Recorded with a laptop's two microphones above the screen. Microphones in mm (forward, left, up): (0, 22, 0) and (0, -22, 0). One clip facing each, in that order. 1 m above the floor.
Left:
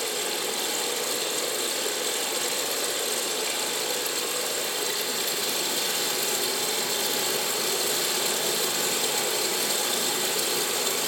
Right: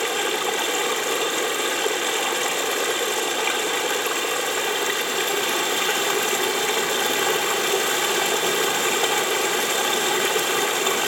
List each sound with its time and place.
0.0 s running water: 55° right (ahead or behind), 1.9 m